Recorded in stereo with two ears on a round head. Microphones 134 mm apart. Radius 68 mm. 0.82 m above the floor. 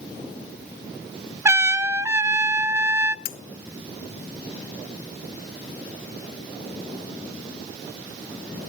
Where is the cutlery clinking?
65° left (ahead or behind), 0.7 m.